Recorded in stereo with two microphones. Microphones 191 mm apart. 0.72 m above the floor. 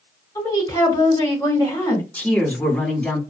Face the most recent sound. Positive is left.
turn(degrees=10)  # may be behind; listen again after turning